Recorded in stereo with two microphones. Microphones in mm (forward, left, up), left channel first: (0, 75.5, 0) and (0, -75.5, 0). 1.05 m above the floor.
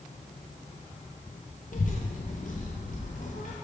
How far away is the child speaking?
About 0.5 m.